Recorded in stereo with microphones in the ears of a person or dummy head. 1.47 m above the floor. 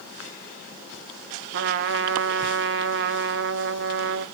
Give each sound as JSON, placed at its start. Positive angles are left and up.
{"t": 1.5, "sound": "a trumpet", "side_deg": -65, "distance_m": 0.6}